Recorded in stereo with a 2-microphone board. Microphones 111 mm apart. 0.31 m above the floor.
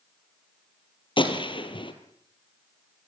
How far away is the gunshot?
About 3 m.